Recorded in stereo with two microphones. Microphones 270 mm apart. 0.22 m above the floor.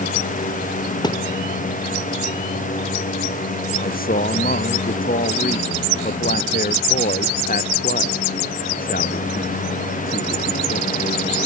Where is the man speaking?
35° left (ahead or behind).